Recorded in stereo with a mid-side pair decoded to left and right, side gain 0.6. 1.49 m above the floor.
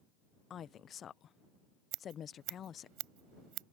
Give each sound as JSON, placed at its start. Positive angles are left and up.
{"t": 0.5, "sound": "a woman speaking", "azimuth_deg": 45}
{"t": 1.9, "sound": "scissors", "azimuth_deg": -70}